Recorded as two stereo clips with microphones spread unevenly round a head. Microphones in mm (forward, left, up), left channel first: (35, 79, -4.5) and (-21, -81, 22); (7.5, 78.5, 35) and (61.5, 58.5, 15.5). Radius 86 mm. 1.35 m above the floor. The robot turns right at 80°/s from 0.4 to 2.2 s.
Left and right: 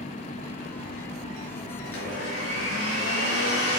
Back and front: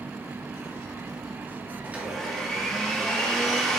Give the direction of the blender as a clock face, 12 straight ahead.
11 o'clock.